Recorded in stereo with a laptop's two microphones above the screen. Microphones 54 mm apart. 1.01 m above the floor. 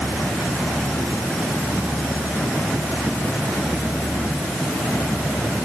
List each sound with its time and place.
Only background noise.